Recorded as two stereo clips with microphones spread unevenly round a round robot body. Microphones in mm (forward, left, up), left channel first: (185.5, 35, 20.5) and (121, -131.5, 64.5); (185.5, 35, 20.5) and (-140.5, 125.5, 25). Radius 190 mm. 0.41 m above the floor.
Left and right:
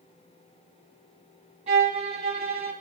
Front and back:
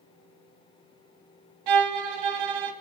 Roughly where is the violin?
Behind.